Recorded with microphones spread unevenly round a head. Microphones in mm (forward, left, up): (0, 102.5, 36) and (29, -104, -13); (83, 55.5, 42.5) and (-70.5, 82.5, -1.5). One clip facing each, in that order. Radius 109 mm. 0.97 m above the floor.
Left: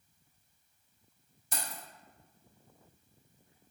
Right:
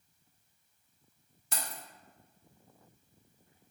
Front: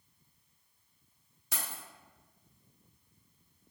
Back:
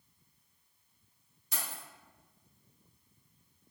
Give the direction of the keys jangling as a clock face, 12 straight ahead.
2 o'clock.